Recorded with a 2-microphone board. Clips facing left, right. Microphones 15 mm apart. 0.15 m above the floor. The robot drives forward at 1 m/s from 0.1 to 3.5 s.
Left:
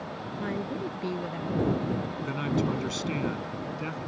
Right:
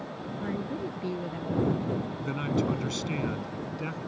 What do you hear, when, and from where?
0.4 s a woman speaking: 15° left (ahead or behind); by 2.1 s 10° left (ahead or behind)
2.2 s a man speaking: centre (ahead or behind)